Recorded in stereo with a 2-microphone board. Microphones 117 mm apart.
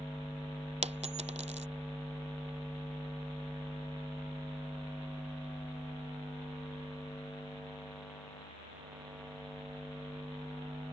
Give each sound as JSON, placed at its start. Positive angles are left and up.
{"t": 0.8, "sound": "a dropped coin", "side_deg": -80}